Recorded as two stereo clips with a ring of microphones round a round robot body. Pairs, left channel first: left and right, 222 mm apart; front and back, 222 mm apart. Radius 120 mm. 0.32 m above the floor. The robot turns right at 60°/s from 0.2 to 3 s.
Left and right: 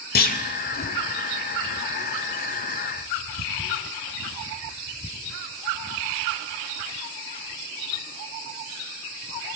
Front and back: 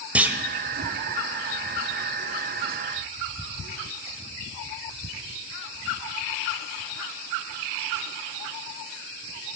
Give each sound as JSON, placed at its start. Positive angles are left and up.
{"t": 0.1, "sound": "a clunk", "azimuth_deg": 100, "distance_m": 0.8}